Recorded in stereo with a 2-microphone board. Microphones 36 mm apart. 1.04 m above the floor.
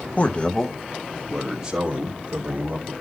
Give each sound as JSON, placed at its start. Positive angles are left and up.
{"t": 0.2, "sound": "a man speaking", "side_deg": 40, "distance_m": 0.9}